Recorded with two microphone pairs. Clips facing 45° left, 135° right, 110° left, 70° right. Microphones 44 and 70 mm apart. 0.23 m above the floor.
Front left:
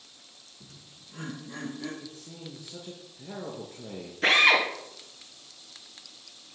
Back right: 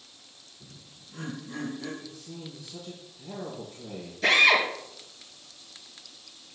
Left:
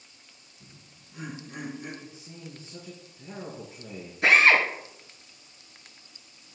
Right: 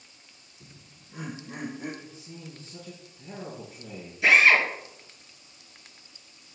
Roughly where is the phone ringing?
No phone ringing in this recording.